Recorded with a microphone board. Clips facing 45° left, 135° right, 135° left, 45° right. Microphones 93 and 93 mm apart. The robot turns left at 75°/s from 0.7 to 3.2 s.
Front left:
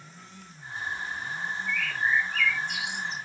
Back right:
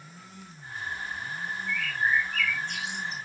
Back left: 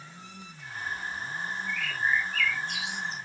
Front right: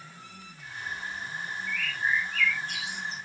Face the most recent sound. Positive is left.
turn(degrees=75)